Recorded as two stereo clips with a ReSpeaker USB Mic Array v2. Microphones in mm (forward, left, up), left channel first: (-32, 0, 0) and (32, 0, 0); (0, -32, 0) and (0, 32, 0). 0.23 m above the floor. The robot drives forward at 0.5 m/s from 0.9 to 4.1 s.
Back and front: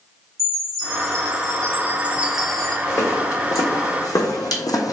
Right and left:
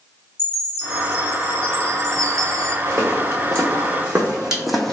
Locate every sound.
0.4 s a chime: 25° left, 0.9 m; by 2.8 s 110° left, 0.5 m
2.9 s footsteps: 130° left, 1.3 m; by 4.9 s 170° right, 0.6 m